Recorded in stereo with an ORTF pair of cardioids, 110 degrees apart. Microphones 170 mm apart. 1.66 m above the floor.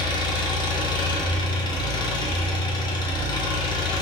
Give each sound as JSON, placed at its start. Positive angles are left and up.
{"t": 0.0, "sound": "an engine running", "azimuth_deg": 25, "distance_m": 0.8}